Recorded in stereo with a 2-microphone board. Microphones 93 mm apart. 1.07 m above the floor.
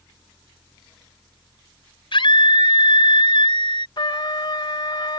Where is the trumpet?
55° left (ahead or behind).